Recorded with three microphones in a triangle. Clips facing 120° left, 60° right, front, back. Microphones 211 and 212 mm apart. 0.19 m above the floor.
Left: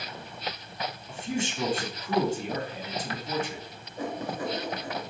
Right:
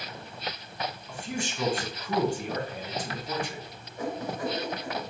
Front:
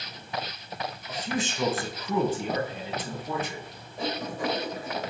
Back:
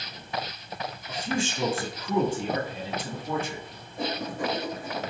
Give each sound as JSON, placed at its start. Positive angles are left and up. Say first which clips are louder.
{"t": 1.1, "sound": "a man speaking", "louder": "left 6 dB, back 2 dB", "azimuth_deg": 160, "distance_m": 1.9}
{"t": 4.0, "sound": "writing", "louder": "even, even", "azimuth_deg": 170, "distance_m": 2.5}